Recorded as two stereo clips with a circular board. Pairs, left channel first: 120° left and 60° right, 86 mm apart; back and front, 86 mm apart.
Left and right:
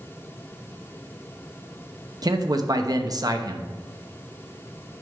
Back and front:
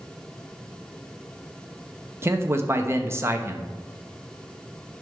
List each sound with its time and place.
2.2 s a man speaking: 45° right, 0.9 m